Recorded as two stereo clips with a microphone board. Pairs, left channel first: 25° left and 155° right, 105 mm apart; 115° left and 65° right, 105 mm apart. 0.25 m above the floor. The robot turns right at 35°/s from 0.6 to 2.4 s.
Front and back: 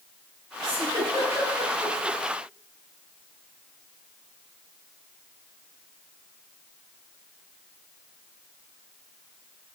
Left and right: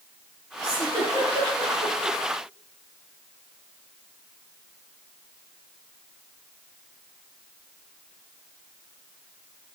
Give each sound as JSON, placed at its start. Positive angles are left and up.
{"t": 0.6, "sound": "a giggle", "azimuth_deg": -120, "distance_m": 3.0}